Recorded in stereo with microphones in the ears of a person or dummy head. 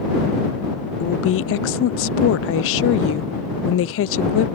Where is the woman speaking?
75° left (ahead or behind).